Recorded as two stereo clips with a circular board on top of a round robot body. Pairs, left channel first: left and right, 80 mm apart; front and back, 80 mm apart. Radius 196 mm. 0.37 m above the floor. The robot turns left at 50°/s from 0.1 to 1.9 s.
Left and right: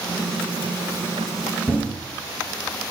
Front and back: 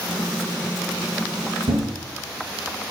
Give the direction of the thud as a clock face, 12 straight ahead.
6 o'clock.